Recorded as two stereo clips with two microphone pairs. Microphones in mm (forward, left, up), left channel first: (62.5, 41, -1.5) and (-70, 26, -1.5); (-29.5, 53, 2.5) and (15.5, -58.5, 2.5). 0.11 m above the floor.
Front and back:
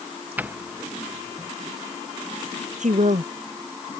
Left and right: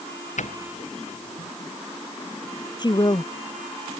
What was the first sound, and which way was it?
A doorbell, 110° left.